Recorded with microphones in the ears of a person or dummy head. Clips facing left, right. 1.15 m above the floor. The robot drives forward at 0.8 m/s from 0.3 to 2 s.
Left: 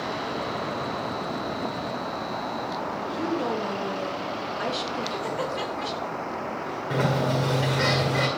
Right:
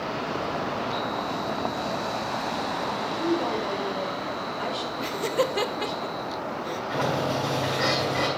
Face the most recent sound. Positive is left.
turn(degrees=50)  # may be behind; listen again after turning